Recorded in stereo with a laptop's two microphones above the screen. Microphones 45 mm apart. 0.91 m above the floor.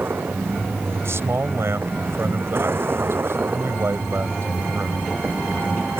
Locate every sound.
0.0 s a vehicle: 60° right (ahead or behind)
1.0 s a man speaking: 75° right (ahead or behind)